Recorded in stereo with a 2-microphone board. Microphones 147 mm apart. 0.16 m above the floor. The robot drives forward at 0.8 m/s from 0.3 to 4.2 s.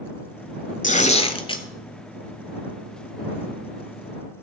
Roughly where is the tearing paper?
Left.